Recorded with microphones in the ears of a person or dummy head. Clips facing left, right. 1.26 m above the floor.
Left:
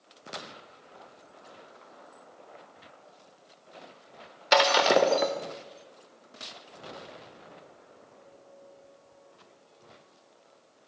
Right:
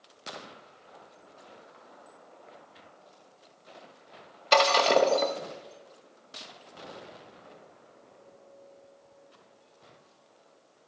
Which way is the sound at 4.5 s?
10° left (ahead or behind).